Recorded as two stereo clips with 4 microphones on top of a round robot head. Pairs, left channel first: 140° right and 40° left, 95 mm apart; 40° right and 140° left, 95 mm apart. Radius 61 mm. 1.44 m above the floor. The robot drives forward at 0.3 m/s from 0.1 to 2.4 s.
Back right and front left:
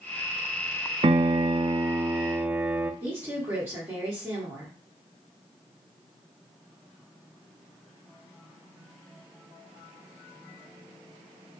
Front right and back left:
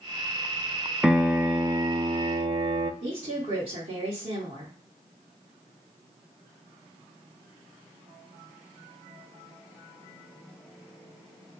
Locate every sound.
1.0 s a piano: 55° left, 0.5 m; by 2.9 s 115° left, 0.5 m
3.0 s a woman speaking: 105° left, 1.4 m